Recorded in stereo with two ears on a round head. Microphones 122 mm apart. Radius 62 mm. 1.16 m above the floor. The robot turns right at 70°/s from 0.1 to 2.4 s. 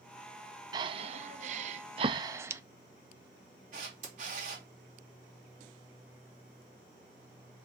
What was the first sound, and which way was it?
Breathing, 30° right (ahead or behind).